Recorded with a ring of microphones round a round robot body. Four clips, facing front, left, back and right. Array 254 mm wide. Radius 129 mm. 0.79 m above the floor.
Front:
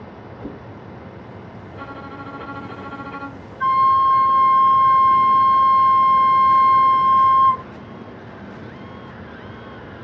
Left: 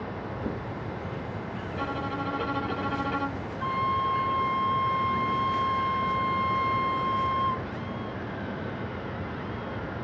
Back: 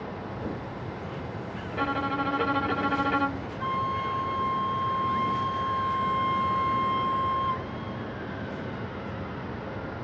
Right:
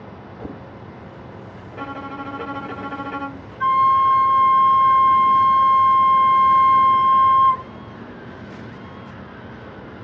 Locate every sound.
0.4 s a whoosh: 70° right, 5.5 m
1.7 s a violin: 165° right, 0.9 m
3.6 s a flute: 50° right, 0.6 m